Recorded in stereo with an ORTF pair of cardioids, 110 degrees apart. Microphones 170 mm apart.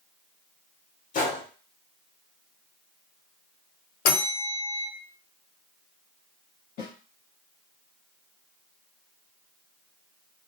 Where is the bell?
65° left, 0.7 m.